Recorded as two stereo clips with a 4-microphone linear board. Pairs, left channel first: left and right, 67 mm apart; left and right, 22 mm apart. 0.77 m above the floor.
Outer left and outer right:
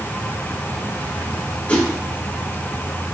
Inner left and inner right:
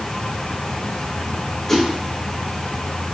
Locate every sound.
1.7 s a whoosh: 20° left (ahead or behind), 0.8 m